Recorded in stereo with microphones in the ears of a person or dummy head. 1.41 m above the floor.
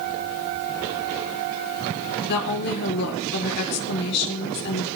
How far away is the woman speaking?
About 4.5 m.